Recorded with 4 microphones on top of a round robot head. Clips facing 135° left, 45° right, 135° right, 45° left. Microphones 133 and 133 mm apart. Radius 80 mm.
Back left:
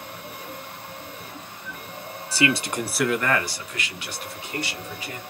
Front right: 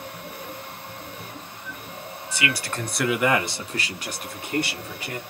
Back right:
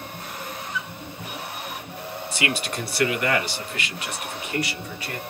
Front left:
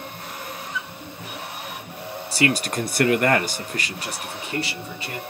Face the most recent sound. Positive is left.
turn(degrees=-20)